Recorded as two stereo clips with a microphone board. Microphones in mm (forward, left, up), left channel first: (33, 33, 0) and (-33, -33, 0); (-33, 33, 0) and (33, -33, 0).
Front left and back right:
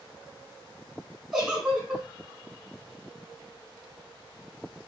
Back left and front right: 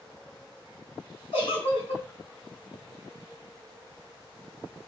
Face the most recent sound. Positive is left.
turn(degrees=140)